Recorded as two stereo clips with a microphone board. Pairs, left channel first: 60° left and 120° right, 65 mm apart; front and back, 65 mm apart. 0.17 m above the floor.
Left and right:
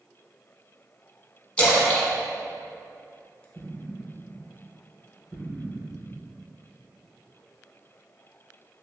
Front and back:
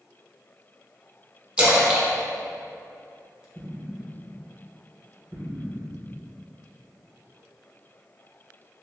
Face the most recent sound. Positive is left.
turn(degrees=155)